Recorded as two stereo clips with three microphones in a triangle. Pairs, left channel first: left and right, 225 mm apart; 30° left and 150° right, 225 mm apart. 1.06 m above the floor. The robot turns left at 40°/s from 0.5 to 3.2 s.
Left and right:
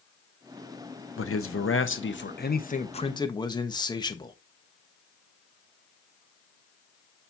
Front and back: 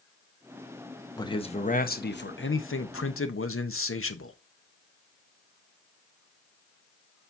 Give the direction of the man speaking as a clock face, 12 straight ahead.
9 o'clock.